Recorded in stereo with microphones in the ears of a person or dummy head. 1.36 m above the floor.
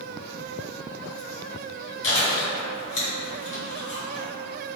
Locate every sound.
2.0 s chewing: 45° left (ahead or behind), 1.9 m